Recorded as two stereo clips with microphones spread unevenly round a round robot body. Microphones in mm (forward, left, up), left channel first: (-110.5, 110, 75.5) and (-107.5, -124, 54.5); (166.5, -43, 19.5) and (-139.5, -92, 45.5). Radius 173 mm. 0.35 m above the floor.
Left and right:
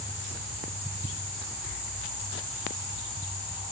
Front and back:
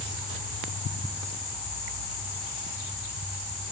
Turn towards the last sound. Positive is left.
No sound to turn to.